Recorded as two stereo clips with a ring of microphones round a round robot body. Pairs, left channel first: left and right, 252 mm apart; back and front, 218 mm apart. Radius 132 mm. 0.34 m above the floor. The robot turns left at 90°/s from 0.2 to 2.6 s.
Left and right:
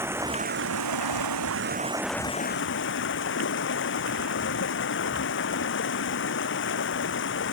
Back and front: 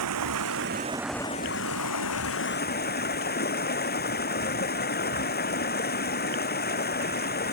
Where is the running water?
10° right; by 7.5 s 135° left.